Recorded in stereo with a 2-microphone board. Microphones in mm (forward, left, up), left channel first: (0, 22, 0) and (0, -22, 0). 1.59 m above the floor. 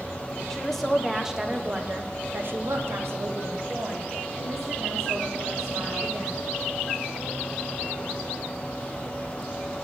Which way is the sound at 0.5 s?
10° left (ahead or behind).